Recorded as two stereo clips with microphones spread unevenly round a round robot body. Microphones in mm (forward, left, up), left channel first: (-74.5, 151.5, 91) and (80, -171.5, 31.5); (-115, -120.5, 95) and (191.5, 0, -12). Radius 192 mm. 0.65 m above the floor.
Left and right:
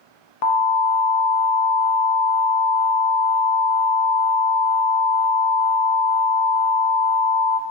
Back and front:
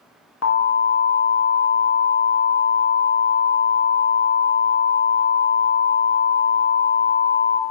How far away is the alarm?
About 0.8 m.